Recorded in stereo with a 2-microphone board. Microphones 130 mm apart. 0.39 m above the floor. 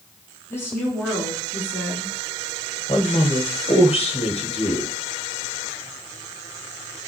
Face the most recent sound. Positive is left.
turn(degrees=50)  # may be behind; listen again after turning